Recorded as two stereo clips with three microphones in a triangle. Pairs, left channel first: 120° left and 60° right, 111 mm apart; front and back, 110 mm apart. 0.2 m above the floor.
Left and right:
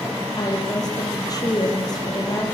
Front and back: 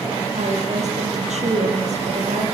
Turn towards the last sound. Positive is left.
turn(degrees=175)